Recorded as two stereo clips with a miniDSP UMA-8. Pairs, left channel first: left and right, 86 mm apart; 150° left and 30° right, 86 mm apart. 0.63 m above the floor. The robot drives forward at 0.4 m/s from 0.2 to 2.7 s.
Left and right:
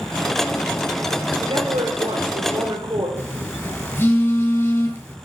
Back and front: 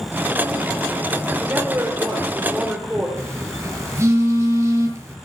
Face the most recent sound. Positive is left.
turn(degrees=25)